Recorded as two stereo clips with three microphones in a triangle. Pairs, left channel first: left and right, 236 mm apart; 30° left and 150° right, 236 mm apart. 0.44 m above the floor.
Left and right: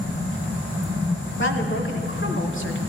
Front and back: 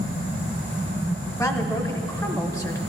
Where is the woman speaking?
105° left, 1.3 m.